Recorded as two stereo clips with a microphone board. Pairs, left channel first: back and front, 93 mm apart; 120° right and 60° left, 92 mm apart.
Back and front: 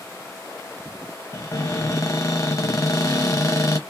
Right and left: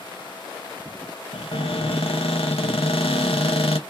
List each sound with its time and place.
1.3 s a cupboard door: 125° right, 0.6 m